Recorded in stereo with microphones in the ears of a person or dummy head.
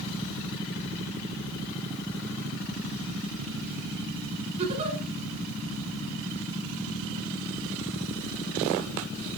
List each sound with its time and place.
4.6 s a giggle: 40° right (ahead or behind), 6 m